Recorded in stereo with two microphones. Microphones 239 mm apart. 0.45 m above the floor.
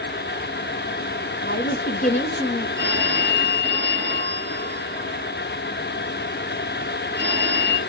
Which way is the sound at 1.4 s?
45° left (ahead or behind).